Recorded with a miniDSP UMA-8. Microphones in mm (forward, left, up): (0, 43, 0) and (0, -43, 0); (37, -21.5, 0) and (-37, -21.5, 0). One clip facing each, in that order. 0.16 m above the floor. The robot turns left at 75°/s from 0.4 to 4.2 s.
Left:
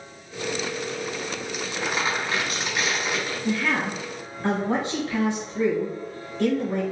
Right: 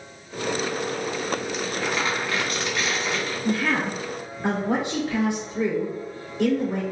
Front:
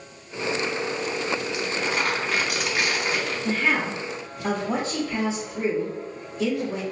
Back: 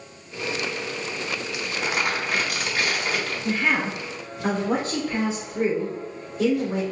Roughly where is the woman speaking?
Right.